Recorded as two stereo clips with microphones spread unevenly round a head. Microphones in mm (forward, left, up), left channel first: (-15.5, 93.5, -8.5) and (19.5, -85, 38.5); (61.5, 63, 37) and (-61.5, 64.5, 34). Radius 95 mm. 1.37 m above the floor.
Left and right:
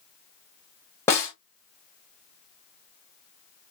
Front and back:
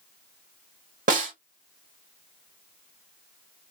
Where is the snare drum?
175° right, 1.3 m.